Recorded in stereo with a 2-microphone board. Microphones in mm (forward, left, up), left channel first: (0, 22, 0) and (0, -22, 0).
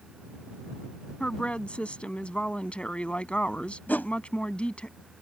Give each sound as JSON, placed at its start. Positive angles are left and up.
{"t": 1.2, "sound": "a woman speaking", "side_deg": 25}
{"t": 3.9, "sound": "a whoosh", "side_deg": 45}